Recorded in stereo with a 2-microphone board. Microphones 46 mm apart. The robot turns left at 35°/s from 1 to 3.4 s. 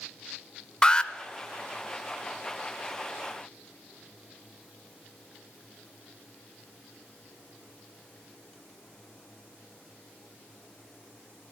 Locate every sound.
0.8 s an alarm: 20° left (ahead or behind), 0.6 m